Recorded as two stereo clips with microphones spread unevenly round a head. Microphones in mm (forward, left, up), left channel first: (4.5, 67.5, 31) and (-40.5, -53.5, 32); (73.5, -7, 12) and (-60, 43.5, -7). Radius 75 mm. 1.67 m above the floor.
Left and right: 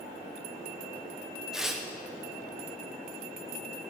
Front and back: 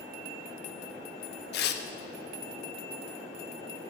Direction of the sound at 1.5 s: 25° right.